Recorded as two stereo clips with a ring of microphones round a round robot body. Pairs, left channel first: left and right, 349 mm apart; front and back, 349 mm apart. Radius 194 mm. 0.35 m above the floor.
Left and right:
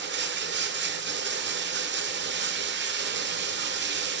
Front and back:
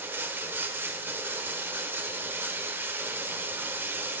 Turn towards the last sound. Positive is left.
turn(degrees=-100)